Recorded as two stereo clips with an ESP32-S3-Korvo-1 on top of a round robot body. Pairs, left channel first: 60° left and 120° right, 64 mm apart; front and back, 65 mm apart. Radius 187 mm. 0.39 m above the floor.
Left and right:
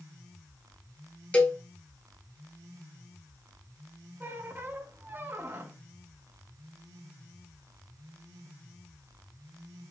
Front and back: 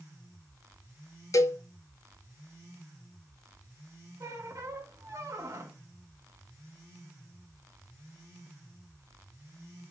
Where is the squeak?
170° right, 1.2 m.